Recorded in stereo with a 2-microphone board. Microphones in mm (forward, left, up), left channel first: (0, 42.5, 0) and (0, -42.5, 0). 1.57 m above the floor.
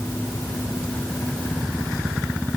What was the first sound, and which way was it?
Only background noise.